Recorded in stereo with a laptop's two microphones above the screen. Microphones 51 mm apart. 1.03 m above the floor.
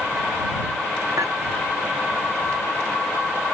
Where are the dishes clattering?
85° right.